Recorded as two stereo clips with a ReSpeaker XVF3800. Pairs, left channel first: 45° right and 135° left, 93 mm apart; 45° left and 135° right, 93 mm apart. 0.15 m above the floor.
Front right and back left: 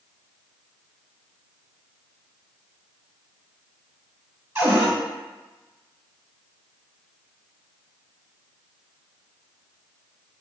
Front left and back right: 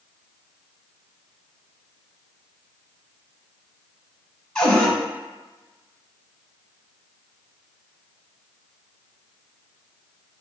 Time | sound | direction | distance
4.5 | a cupboard door | 115° left | 1.5 m